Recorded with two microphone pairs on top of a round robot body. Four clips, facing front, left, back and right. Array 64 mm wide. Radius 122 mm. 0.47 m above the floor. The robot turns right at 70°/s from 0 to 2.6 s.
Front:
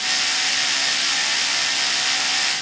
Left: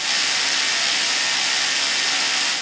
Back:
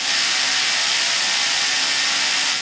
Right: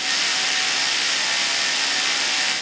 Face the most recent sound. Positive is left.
No sound to turn to.